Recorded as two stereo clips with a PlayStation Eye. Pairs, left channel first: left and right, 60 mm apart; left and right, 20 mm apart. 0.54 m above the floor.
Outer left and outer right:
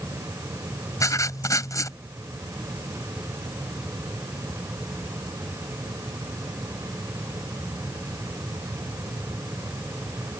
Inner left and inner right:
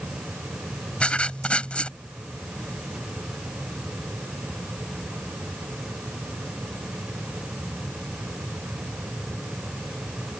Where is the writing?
75° left (ahead or behind).